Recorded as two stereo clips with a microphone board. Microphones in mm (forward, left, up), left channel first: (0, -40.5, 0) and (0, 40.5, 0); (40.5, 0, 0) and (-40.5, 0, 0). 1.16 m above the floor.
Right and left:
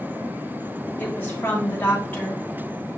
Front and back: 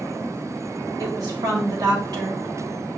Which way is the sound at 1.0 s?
155° right.